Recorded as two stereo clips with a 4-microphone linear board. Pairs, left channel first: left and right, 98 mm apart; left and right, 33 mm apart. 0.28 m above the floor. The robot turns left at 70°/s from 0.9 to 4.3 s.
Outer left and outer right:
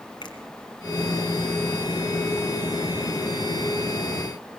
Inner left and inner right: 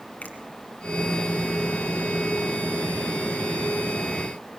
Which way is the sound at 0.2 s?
50° left (ahead or behind).